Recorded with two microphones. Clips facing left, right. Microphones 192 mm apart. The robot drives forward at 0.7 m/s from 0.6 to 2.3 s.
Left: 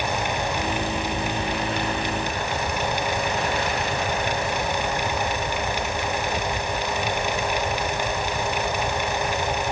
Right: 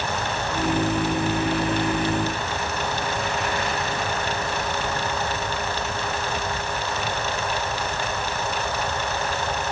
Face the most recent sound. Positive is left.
No sound to turn to.